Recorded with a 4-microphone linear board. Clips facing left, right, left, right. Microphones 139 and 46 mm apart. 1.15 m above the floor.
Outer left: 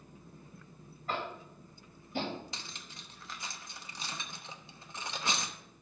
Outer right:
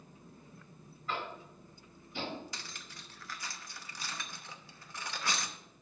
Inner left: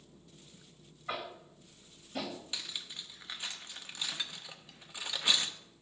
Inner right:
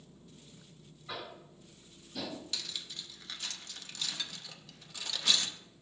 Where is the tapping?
50° left (ahead or behind), 2 m.